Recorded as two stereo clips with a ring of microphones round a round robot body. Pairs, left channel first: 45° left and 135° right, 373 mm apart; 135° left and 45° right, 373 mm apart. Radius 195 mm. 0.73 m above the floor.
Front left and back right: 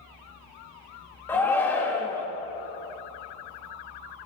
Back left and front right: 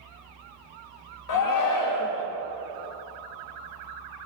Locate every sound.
1.3 s a shout: 130° left, 1.3 m